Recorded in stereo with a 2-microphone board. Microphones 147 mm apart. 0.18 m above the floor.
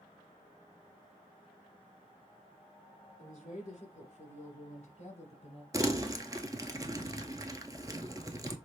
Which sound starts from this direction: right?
Crumpling, at 5.7 s.